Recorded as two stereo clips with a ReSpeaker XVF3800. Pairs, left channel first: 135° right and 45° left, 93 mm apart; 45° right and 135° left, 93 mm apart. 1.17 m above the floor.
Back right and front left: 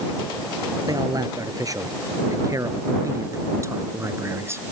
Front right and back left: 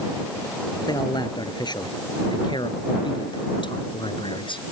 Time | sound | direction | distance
0.9 | a man speaking | 5° right | ?